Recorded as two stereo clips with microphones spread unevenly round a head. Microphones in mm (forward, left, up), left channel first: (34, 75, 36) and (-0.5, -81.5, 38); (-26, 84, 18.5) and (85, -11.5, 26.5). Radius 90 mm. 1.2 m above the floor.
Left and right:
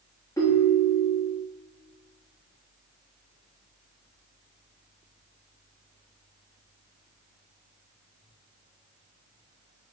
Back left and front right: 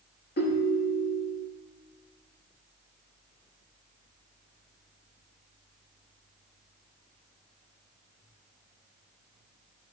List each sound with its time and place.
0.4 s a ringtone: 150° left, 0.8 m